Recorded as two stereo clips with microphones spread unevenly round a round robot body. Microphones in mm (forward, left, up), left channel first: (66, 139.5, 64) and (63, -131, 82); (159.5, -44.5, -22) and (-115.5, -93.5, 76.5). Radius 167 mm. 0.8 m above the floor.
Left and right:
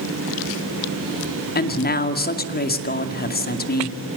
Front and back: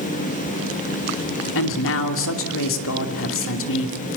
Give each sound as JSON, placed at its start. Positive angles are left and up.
{"t": 1.6, "sound": "a woman speaking", "azimuth_deg": 40, "distance_m": 2.5}